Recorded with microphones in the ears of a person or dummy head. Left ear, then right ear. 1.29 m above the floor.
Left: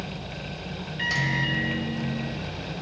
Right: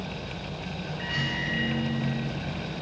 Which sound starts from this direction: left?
A microwave, at 1.0 s.